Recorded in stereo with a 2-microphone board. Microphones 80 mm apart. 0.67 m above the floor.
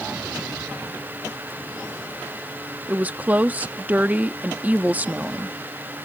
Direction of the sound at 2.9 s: 20° right (ahead or behind).